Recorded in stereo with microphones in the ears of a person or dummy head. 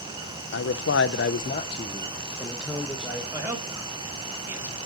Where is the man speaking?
55° left (ahead or behind), 0.7 m; by 3.2 s 5° right (ahead or behind), 1.4 m.